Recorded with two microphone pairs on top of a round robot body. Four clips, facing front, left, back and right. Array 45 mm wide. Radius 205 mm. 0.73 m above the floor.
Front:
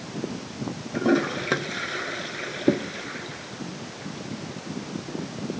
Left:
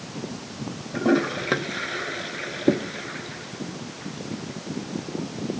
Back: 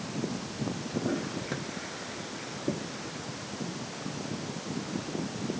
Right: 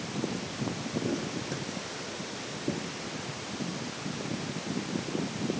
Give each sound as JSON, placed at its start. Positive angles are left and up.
{"t": 0.9, "sound": "a toilet flushing", "azimuth_deg": 45}